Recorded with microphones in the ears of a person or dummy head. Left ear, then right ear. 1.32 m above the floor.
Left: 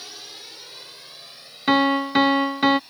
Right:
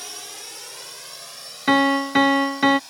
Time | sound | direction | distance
0.0 | a drone | 35° right (ahead or behind) | ?
1.7 | a piano | 10° right (ahead or behind) | ?